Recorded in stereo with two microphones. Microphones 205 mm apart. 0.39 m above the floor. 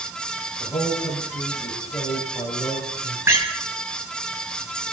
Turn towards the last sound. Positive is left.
turn(degrees=-10)  # may be behind; listen again after turning